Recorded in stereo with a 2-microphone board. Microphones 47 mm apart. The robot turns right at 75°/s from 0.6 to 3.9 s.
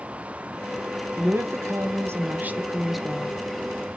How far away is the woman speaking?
About 0.9 m.